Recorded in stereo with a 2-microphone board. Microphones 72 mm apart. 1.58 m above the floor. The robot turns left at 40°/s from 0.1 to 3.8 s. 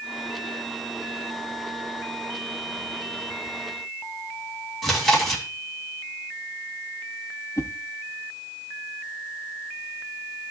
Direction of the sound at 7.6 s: 45° left (ahead or behind).